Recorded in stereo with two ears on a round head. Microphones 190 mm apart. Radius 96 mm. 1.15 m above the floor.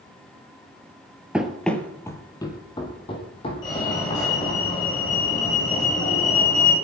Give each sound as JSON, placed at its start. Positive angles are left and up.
{"t": 1.3, "sound": "running footsteps", "side_deg": -5, "distance_m": 1.4}
{"t": 3.6, "sound": "a fire alarm", "side_deg": 20, "distance_m": 9.5}